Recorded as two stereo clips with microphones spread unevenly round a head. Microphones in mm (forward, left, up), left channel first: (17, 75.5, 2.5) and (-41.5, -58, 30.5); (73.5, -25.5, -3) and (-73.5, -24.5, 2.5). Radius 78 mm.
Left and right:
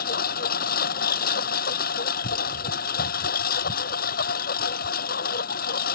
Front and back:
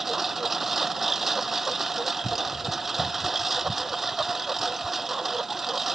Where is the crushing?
I don't hear crushing.